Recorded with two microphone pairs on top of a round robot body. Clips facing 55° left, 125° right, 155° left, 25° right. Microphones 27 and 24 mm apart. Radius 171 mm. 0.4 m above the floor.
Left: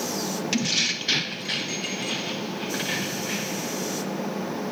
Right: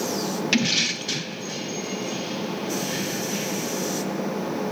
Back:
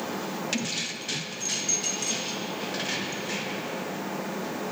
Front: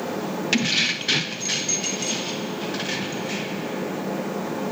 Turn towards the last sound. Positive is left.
turn(degrees=60)